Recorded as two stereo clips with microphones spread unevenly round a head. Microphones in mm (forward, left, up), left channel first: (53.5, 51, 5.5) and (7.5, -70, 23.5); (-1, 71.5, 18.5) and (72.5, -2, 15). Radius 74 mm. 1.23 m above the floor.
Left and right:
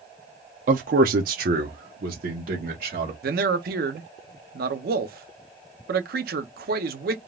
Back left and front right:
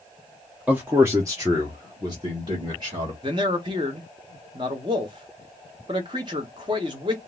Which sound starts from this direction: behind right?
A man speaking, at 0.7 s.